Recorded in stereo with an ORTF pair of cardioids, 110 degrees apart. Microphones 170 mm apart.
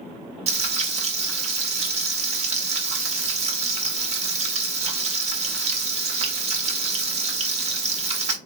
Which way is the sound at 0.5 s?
40° right.